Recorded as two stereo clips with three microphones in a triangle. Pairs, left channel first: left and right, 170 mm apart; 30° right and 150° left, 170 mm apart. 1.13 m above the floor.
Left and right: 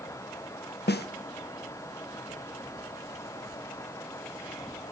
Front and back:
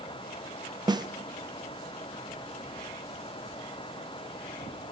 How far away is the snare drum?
About 0.5 m.